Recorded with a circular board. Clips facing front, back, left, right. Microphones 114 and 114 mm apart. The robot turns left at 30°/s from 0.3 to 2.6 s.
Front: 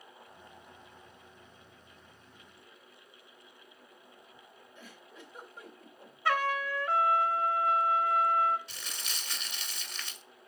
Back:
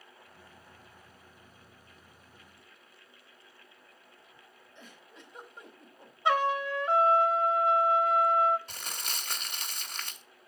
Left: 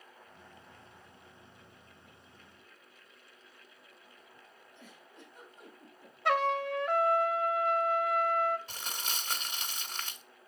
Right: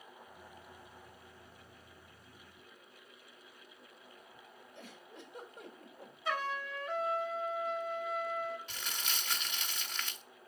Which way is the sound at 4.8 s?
85° right.